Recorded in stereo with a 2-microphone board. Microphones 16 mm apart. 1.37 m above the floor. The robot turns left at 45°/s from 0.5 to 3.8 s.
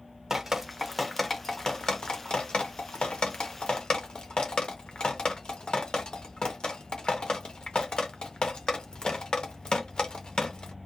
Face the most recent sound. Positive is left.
turn(degrees=50)  # may be behind; listen again after turning